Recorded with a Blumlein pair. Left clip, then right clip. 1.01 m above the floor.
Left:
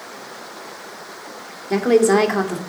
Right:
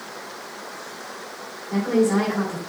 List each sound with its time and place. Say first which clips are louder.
1.7 s a woman speaking: left 6 dB; 45° left, 1.8 m